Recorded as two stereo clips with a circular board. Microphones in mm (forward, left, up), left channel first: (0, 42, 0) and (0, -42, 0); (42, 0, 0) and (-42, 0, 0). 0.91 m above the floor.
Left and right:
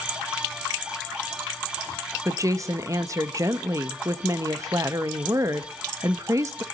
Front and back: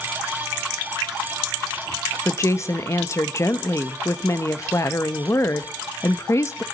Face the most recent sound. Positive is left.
turn(degrees=-50)